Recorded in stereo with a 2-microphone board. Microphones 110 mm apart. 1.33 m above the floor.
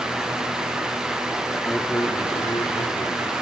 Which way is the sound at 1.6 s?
20° left (ahead or behind).